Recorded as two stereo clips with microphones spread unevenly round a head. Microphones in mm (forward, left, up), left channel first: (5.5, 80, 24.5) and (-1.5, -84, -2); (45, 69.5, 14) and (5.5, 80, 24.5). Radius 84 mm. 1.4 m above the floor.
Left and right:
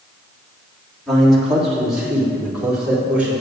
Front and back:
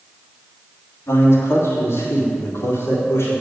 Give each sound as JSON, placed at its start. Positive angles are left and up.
{"t": 1.1, "sound": "a man speaking", "azimuth_deg": 0, "distance_m": 3.5}